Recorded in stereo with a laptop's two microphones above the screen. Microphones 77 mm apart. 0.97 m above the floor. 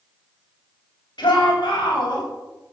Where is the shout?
85° left, 5.5 m; by 2.2 s 80° left, 6 m.